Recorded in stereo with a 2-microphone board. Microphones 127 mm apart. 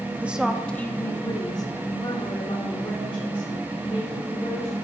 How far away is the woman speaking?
About 0.7 m.